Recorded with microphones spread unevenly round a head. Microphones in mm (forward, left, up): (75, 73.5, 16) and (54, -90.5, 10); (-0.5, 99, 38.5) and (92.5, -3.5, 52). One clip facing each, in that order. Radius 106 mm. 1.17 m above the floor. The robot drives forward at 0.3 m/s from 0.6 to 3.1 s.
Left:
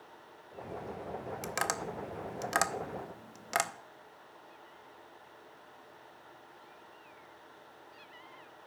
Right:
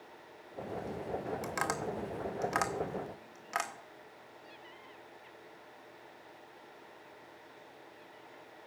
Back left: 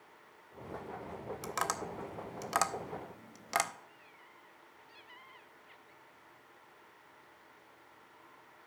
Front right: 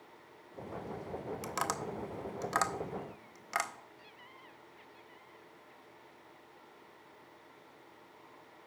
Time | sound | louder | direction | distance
1.4 | tapping | right 1 dB, back left 2 dB | 30° left | 0.8 m